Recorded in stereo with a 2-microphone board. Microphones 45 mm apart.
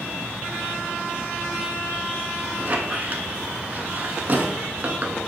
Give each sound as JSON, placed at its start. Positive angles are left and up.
{"t": 2.6, "sound": "a squeak", "side_deg": -40, "distance_m": 0.6}